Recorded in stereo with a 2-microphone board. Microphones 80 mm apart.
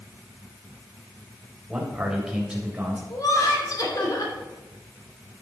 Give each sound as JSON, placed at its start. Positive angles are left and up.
{"t": 1.7, "sound": "a man speaking", "side_deg": -5, "distance_m": 3.5}
{"t": 3.1, "sound": "laughter", "side_deg": 50, "distance_m": 3.0}